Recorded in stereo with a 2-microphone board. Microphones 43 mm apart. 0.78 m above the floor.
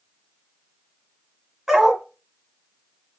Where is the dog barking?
10° right (ahead or behind), 1.3 m.